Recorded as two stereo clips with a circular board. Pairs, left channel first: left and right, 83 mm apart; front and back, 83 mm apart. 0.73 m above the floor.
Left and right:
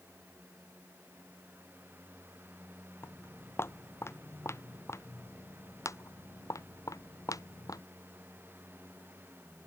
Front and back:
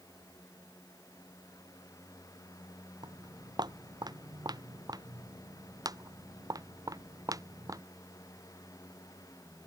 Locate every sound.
3.0 s footsteps: 150° left; by 7.8 s 135° left